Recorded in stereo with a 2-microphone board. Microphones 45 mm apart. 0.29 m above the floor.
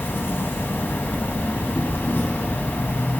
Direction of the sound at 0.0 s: 55° left (ahead or behind).